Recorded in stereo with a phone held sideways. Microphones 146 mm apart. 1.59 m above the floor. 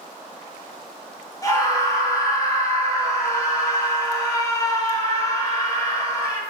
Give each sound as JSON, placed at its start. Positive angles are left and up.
{"t": 1.4, "sound": "a scream", "side_deg": 25, "distance_m": 4.0}